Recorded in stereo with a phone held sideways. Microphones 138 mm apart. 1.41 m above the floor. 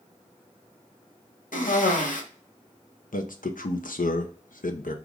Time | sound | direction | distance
1.5 | a cough | 75° left (ahead or behind) | 1.1 m
3.1 | a man speaking | 80° left | 0.6 m